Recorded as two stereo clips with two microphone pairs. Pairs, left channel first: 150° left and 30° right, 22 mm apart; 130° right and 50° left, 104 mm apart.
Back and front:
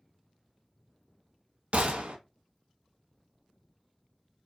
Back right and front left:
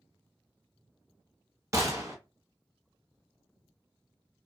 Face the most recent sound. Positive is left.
turn(degrees=-10)